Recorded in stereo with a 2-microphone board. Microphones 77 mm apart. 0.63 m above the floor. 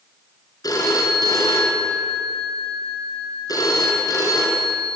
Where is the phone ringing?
55° left (ahead or behind), 6 m.